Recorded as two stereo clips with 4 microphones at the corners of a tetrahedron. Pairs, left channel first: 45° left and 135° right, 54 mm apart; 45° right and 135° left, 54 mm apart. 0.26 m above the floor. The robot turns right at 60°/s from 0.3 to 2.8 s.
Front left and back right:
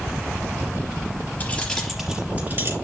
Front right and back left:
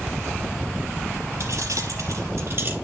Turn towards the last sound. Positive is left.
turn(degrees=-165)